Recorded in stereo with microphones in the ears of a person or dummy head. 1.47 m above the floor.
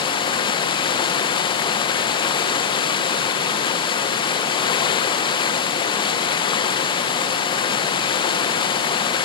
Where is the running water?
30° left (ahead or behind), 0.8 m.